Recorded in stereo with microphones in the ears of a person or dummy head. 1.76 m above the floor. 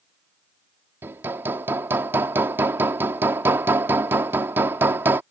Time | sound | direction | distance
1.0 | hammering | 15° right (ahead or behind) | ?